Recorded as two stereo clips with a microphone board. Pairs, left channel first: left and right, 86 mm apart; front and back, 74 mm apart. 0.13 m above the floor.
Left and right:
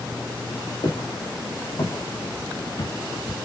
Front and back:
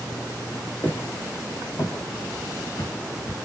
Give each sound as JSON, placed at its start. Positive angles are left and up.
{"t": 0.8, "sound": "footsteps", "azimuth_deg": 65, "distance_m": 3.0}